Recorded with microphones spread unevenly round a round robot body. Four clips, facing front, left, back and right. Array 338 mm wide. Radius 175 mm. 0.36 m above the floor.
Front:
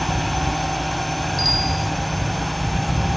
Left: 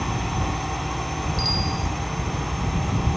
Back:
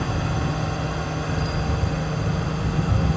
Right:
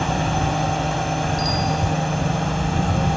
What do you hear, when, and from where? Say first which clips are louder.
0.0 s a drone: right 6 dB, front 3 dB; 110° right
1.4 s a bicycle bell: right 5 dB, front 3 dB; 5° right